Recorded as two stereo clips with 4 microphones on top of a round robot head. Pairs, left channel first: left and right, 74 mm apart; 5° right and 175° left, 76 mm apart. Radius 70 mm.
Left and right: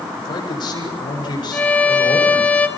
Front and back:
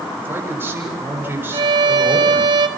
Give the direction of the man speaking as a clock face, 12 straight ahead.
8 o'clock.